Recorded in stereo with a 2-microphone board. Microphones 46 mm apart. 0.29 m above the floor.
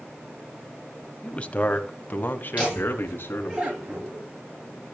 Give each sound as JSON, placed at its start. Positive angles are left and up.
{"t": 1.2, "sound": "a man speaking", "side_deg": 20, "distance_m": 1.3}
{"t": 2.6, "sound": "laughter", "side_deg": -30, "distance_m": 4.5}